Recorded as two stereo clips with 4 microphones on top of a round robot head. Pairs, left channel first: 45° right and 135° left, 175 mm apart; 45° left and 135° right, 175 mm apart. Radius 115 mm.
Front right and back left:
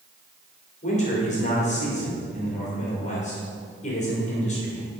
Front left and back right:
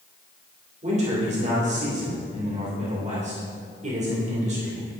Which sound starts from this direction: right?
A man speaking, at 0.8 s.